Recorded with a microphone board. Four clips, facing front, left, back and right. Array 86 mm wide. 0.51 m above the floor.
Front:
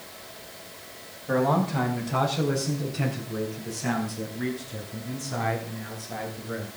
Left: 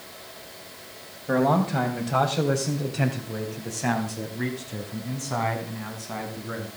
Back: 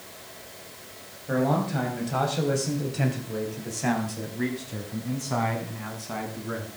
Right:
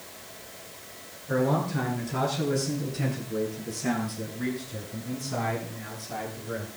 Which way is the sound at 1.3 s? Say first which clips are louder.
Left 4 dB, front 1 dB; 80° left.